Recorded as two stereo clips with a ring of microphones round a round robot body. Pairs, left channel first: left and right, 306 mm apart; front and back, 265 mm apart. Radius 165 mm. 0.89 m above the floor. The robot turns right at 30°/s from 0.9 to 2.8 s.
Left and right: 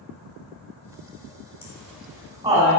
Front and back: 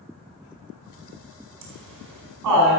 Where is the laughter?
170° left, 4.5 m; by 2.8 s 150° right, 4.5 m.